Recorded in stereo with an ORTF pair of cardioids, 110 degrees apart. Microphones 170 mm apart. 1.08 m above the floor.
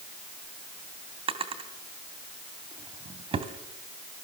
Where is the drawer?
35° right, 2 m.